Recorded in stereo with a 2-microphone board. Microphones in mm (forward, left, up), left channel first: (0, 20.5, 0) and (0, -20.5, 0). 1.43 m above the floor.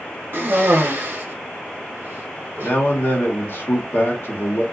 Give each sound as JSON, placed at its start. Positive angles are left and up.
{"t": 0.3, "sound": "a cough", "side_deg": -60, "distance_m": 0.6}
{"t": 2.6, "sound": "a man speaking", "side_deg": 55, "distance_m": 0.8}